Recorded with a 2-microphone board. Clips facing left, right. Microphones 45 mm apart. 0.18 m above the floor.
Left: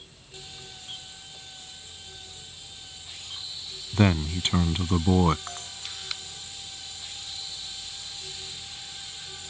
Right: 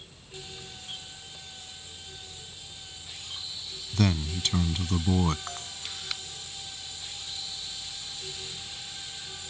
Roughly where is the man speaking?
Left.